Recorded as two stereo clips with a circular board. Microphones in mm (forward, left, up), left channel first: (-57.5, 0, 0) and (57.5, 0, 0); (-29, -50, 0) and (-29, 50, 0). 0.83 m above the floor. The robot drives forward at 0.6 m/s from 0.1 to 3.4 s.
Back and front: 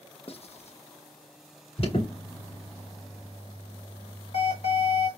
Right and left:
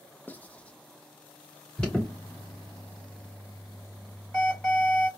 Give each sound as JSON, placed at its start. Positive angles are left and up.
{"t": 0.3, "sound": "writing", "azimuth_deg": -160, "distance_m": 0.5}
{"t": 1.8, "sound": "an alarm", "azimuth_deg": -165, "distance_m": 2.5}